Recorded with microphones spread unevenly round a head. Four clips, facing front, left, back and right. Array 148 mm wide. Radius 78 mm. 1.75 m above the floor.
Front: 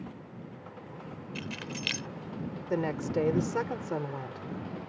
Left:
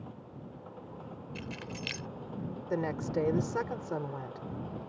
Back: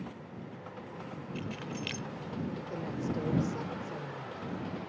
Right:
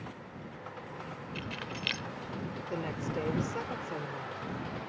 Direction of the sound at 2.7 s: 15° left.